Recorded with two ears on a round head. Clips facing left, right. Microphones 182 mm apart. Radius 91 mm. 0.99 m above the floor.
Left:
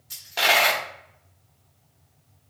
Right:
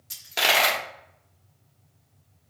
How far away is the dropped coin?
About 1.1 m.